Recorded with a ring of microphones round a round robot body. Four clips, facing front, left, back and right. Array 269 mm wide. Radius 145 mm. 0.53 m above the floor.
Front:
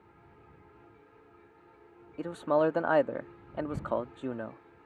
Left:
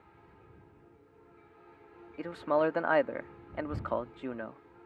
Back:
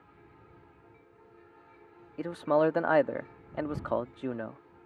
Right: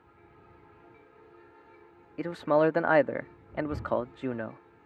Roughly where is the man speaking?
Right.